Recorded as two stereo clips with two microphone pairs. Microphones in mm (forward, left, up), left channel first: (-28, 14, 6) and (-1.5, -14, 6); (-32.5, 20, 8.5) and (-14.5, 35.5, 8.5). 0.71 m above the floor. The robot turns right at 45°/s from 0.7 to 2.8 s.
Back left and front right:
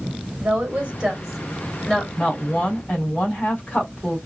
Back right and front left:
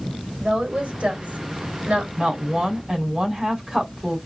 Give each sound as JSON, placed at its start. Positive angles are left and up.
{"t": 0.4, "sound": "a woman speaking", "azimuth_deg": 10, "distance_m": 3.0}
{"t": 2.2, "sound": "a woman speaking", "azimuth_deg": 90, "distance_m": 4.0}